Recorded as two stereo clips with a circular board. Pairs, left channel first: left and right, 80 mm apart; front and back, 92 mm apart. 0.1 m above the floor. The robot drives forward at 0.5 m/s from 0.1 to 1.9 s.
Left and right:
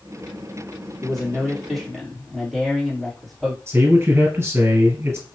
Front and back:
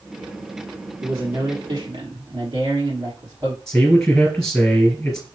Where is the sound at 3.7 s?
75° right, 1.8 m.